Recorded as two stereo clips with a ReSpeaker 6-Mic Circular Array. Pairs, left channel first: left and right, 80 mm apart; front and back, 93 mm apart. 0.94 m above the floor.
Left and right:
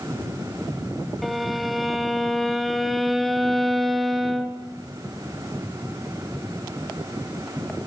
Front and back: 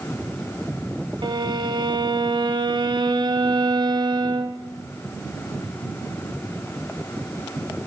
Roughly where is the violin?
Behind.